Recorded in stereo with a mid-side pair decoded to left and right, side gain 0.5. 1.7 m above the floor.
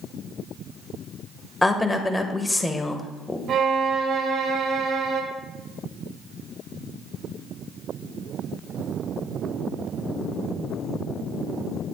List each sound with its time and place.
1.6 s a woman speaking: 15° left, 1.5 m
3.5 s a violin: 60° right, 1.8 m